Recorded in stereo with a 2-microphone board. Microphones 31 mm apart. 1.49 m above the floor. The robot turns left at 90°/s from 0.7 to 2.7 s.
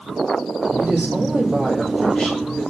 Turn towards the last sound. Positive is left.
turn(degrees=115)